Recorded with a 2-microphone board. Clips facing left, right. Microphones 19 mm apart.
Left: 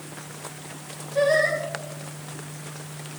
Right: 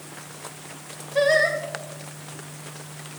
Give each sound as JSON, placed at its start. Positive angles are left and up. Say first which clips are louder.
{"t": 1.1, "sound": "singing", "louder": "right 1 dB", "side_deg": -45, "distance_m": 2.0}